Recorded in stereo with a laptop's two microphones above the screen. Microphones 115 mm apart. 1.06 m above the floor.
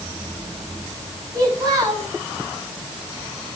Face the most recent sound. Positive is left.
turn(degrees=-30)  # may be behind; listen again after turning